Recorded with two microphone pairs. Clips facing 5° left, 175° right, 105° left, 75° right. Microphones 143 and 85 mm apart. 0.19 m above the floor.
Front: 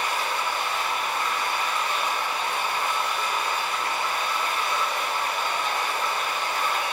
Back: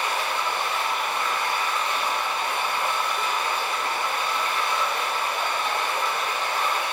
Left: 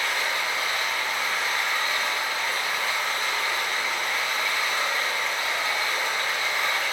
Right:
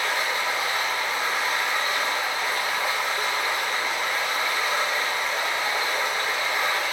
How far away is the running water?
About 3 m.